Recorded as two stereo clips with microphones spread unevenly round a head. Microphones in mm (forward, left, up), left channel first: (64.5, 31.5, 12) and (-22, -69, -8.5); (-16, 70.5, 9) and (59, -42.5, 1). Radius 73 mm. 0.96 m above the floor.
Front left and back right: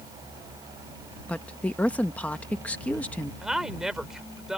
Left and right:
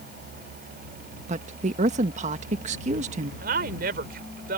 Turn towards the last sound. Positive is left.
turn(degrees=-45)